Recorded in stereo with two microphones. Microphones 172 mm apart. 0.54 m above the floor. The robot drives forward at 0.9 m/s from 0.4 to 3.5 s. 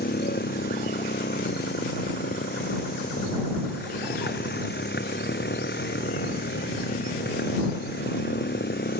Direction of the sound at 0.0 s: 75° left (ahead or behind).